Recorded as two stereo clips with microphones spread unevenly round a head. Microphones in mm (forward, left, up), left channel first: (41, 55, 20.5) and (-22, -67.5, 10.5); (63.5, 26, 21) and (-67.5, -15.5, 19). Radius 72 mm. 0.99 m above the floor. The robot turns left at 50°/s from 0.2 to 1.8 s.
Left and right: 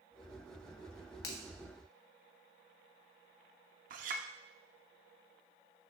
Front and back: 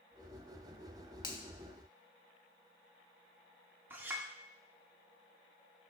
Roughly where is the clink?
Right.